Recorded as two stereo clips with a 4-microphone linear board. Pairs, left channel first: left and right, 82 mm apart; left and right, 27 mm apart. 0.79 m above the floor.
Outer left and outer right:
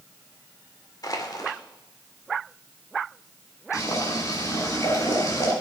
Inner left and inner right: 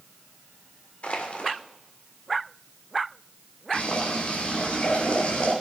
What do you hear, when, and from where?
1.0 s crushing: 45° left (ahead or behind), 2 m
3.7 s boiling: 45° left (ahead or behind), 4.5 m